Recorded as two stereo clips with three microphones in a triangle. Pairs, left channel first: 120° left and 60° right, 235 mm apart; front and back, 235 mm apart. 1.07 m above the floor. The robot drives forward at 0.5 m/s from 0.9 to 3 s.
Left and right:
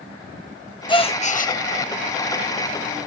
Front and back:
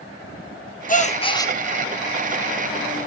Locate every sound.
0.9 s a gasp: 55° left, 0.8 m; by 1.5 s 80° left, 0.7 m